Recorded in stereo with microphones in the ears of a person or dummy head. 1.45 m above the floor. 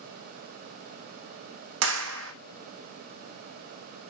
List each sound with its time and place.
1.8 s a clap: 70° right (ahead or behind), 0.6 m